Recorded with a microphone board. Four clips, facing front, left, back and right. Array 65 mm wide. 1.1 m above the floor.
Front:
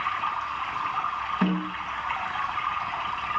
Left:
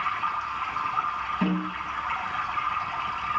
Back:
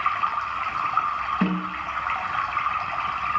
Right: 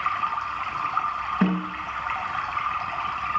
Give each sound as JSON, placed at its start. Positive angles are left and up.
{"t": 0.0, "sound": "running water", "azimuth_deg": -150, "distance_m": 4.0}
{"t": 1.4, "sound": "a snare drum", "azimuth_deg": -125, "distance_m": 9.5}